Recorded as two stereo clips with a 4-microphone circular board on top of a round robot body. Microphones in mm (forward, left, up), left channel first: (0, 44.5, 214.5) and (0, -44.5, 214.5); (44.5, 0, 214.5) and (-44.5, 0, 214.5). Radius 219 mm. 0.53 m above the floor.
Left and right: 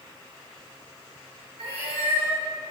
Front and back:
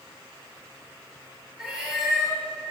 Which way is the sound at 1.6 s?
95° right.